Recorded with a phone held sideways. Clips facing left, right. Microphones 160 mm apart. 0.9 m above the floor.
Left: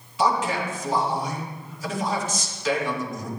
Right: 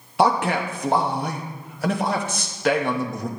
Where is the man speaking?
60° right (ahead or behind), 1.0 m.